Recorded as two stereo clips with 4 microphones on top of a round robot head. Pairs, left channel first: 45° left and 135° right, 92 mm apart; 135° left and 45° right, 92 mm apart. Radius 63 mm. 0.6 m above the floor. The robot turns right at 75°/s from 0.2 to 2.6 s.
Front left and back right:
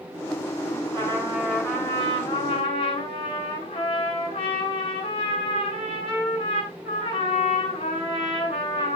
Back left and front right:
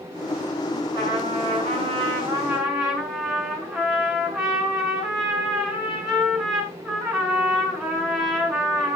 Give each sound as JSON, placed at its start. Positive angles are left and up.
{"t": 0.9, "sound": "a trumpet", "azimuth_deg": -85, "distance_m": 7.5}